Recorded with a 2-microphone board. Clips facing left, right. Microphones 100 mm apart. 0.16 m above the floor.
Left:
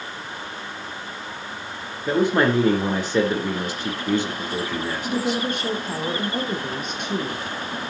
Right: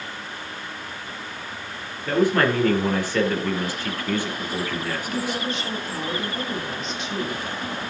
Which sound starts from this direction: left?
A woman speaking, at 5.0 s.